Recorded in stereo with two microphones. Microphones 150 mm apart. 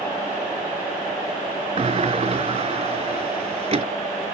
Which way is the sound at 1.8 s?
45° right (ahead or behind).